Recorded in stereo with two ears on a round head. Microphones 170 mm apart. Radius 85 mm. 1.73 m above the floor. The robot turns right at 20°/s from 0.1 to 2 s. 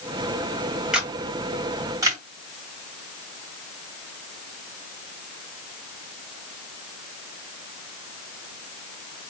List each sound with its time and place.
0.9 s a camera shutter: 5° right (ahead or behind), 2 m; by 2.2 s 20° right (ahead or behind), 2 m